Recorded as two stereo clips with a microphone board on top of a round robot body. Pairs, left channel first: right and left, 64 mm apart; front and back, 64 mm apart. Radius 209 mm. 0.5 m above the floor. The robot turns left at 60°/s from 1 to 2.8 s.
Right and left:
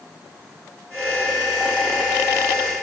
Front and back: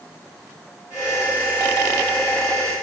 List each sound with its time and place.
Only background noise.